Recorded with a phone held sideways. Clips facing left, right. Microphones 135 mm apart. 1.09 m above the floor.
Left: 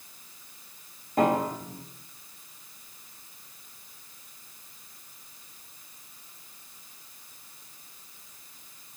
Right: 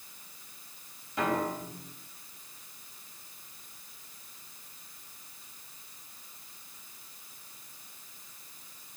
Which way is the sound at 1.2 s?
45° left (ahead or behind).